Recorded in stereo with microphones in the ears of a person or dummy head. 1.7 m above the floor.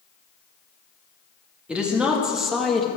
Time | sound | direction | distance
1.7 | a woman speaking | 5° left (ahead or behind) | 2.5 m